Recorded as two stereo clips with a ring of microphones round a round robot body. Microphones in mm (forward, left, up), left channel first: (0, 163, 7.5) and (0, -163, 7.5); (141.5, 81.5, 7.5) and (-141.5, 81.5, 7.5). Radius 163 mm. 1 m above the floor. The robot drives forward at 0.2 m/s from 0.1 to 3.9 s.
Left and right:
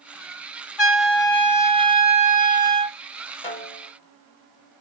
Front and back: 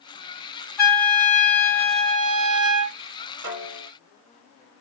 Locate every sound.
0.8 s a trumpet: 75° left, 1.7 m; by 3.0 s 90° left, 1.7 m
3.4 s a snare drum: 160° left, 1.7 m